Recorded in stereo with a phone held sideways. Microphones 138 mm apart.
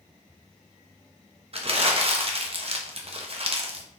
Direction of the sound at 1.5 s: 45° right (ahead or behind).